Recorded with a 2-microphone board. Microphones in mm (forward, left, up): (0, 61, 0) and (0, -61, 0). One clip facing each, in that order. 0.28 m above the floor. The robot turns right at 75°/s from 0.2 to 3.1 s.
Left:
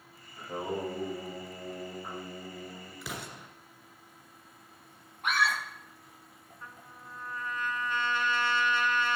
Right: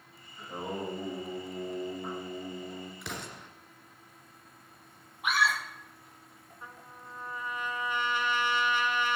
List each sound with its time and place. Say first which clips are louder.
0.4 s singing: left 2 dB; 140° left, 8.5 m; by 2.9 s 30° right, 8.5 m
3.0 s an explosion: even; centre (ahead or behind), 2 m; by 3.5 s 5° left (ahead or behind), 2 m
5.2 s a scream: right 1 dB; 5° right (ahead or behind), 7.5 m
6.6 s a trumpet: right 1 dB; 15° right (ahead or behind), 1.4 m